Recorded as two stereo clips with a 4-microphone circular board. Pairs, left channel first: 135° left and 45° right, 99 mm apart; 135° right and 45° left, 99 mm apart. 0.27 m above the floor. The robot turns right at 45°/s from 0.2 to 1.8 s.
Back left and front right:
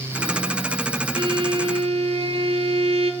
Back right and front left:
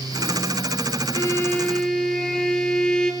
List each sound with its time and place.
1.1 s a violin: 80° right, 0.7 m; by 3.1 s 55° right, 0.7 m